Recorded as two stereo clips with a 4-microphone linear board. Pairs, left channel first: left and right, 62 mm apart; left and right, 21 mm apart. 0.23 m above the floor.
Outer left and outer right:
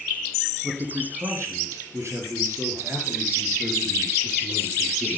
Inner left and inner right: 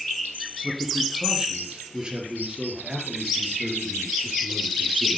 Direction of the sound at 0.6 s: 50° right (ahead or behind).